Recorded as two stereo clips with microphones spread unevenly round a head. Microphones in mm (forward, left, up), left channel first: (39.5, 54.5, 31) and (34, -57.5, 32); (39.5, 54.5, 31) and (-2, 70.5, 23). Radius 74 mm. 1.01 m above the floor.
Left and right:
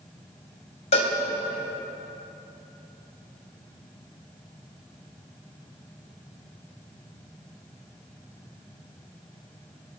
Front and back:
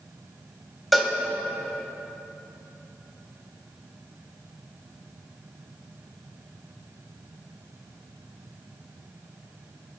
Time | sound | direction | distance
0.9 | a cowbell | 70° left | 2.5 m